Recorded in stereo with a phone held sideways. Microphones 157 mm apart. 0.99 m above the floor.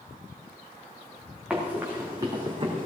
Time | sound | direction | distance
1.5 | running footsteps | 5° right (ahead or behind) | 3 m